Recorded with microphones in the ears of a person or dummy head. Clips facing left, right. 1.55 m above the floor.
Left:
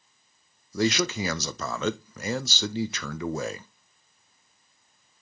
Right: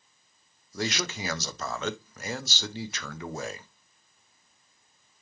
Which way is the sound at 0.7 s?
70° left (ahead or behind).